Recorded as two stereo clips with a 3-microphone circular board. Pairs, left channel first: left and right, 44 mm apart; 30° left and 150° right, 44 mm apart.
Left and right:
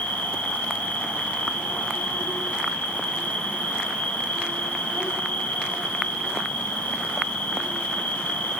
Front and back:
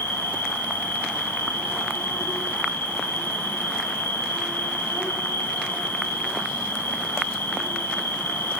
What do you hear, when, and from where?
0.0 s an insect: 35° left, 5 m